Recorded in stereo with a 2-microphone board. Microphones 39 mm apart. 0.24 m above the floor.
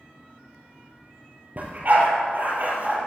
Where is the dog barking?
45° right (ahead or behind), 2.5 m.